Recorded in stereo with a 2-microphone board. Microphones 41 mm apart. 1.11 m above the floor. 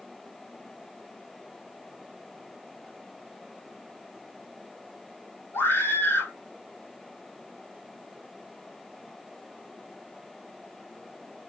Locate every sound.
5.5 s a scream: 70° left (ahead or behind), 5 m